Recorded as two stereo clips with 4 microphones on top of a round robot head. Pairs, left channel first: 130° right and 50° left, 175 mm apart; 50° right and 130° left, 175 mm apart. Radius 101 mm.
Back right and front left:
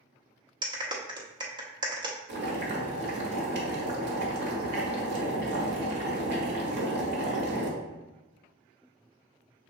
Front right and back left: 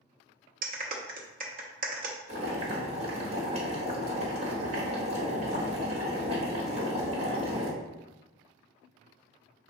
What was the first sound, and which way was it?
A clap, 110° left.